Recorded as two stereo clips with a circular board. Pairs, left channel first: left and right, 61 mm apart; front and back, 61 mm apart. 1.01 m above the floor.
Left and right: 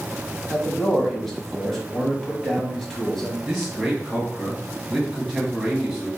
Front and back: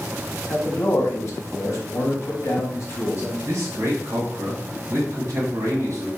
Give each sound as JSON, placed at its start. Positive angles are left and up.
{"t": 0.5, "sound": "a man speaking", "azimuth_deg": 10, "distance_m": 0.9}
{"t": 3.5, "sound": "a man speaking", "azimuth_deg": 180, "distance_m": 1.3}